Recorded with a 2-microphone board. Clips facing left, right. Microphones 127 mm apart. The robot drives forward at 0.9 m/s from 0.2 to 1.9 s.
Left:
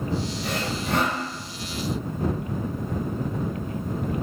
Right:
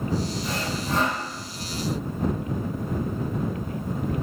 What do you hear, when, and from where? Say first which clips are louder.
0.4 s sawing: left 1 dB; 70° left (ahead or behind), 2 m